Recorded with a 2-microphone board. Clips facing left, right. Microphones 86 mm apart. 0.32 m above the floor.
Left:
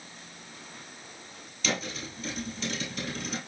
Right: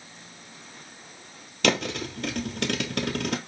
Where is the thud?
70° right (ahead or behind), 0.8 m.